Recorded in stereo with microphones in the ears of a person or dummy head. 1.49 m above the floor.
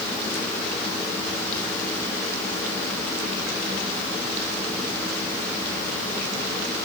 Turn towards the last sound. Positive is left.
No sound to turn to.